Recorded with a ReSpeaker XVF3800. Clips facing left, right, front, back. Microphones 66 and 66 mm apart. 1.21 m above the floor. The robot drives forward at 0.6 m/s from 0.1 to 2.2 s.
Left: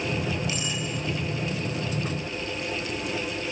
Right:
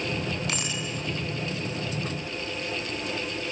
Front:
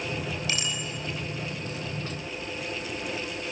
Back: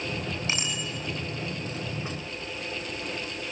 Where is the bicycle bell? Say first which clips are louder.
Left 1 dB, back 1 dB; 115° right, 8 m.